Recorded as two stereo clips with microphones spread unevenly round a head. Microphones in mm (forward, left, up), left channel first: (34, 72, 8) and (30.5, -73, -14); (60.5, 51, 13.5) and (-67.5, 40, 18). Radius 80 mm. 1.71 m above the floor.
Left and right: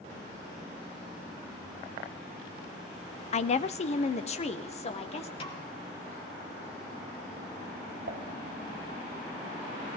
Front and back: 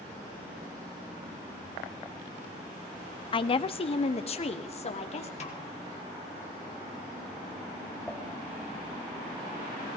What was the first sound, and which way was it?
A woman speaking, 55° left.